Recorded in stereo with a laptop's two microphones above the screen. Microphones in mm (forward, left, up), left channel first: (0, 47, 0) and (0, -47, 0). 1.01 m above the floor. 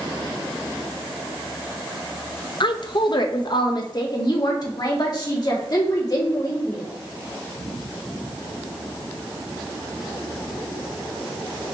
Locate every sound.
2.6 s a woman speaking: 55° left (ahead or behind), 0.5 m; by 6.8 s 45° left (ahead or behind), 2.5 m